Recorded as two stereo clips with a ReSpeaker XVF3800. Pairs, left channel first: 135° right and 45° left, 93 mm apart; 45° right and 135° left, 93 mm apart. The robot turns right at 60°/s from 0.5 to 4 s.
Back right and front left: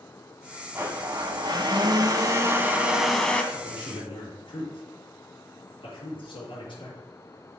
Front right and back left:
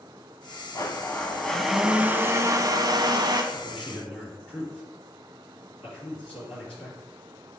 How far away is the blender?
About 0.9 m.